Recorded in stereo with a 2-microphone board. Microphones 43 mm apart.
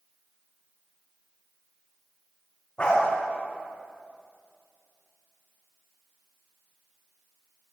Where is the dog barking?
30° left (ahead or behind), 4.5 m.